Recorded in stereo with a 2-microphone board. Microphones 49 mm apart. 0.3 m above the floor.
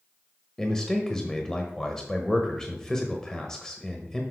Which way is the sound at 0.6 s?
10° left (ahead or behind).